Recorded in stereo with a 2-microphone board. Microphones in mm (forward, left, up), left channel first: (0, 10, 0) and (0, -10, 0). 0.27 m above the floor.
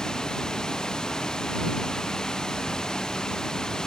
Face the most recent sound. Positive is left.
turn(degrees=35)  # may be behind; listen again after turning